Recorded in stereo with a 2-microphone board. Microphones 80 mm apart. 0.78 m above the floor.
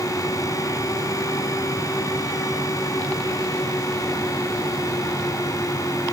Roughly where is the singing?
I don't hear singing.